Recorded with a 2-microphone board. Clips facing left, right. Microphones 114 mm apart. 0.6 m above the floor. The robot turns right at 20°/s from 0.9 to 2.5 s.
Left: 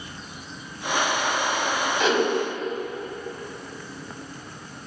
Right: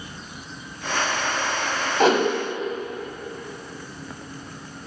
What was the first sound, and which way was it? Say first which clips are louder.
A whoosh: right 5 dB; 50° right (ahead or behind).